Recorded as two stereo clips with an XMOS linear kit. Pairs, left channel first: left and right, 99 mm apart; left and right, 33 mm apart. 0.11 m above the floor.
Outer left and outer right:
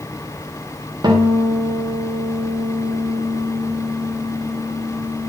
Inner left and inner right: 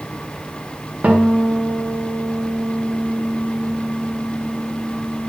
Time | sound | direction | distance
1.0 | a guitar | 45° right (ahead or behind) | 4 m